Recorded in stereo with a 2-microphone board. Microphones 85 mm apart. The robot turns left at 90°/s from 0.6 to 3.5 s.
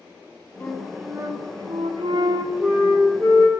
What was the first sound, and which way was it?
A flute, 15° left.